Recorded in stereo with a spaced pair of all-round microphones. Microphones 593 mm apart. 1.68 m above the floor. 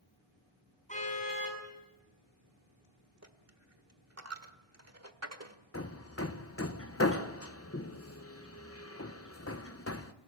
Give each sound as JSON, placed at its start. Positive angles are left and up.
{"t": 0.9, "sound": "a car horn", "side_deg": 10, "distance_m": 8.5}
{"t": 3.2, "sound": "a dropped coin", "side_deg": -25, "distance_m": 1.5}
{"t": 5.7, "sound": "hammering", "side_deg": 25, "distance_m": 1.0}